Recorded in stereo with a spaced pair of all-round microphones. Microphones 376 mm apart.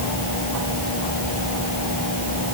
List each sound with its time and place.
Only background noise.